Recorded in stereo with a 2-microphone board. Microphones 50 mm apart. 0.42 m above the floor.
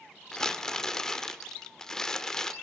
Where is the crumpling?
10° left (ahead or behind), 1.4 m.